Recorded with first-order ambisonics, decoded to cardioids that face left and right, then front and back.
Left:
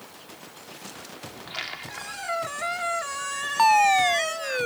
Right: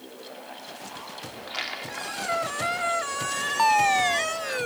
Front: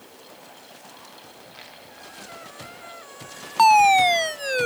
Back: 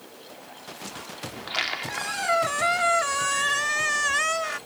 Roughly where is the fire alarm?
Ahead.